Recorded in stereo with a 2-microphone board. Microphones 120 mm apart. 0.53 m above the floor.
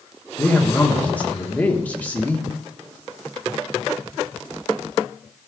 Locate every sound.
0.4 s a man speaking: 15° left (ahead or behind), 1.2 m